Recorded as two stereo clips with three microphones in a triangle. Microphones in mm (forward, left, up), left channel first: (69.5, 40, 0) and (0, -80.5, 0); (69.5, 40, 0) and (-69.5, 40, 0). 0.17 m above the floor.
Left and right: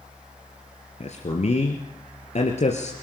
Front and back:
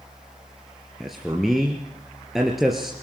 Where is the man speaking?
90° left, 3 m.